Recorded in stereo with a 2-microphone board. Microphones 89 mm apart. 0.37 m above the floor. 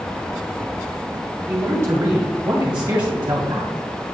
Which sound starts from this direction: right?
A man speaking, at 1.5 s.